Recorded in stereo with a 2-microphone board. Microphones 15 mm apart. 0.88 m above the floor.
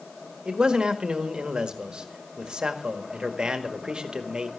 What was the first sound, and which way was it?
A man speaking, 55° right (ahead or behind).